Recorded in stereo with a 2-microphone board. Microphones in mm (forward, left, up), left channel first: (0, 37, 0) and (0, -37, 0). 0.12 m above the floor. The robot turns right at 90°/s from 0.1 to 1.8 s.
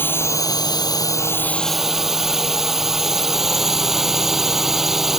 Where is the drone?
30° left; by 5.2 s 175° right.